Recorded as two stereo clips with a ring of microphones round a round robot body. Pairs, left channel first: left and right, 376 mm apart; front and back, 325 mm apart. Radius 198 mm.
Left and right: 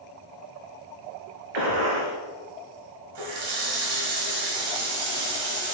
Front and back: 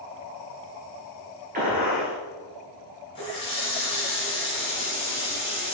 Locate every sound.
1.5 s a gunshot: 110° right, 2 m
3.1 s a running tap: 75° right, 1.8 m